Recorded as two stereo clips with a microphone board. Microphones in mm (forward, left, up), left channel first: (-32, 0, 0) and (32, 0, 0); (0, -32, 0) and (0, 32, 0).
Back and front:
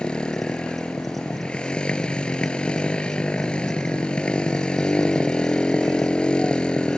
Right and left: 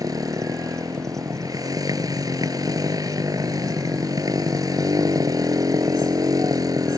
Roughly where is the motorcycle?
Left.